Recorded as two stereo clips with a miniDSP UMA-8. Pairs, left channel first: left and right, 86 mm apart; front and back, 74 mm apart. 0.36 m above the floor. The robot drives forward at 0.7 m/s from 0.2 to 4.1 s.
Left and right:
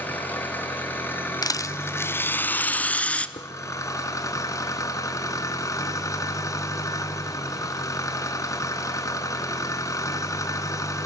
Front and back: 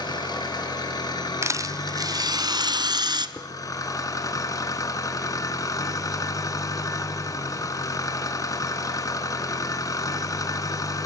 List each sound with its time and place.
0.0 s an engine running: 20° left, 5.5 m; by 11.1 s 40° left, 3 m
1.4 s a rattle: 130° left, 0.6 m; by 3.3 s 165° left, 1.7 m
3.4 s dishes clattering: 85° left, 4 m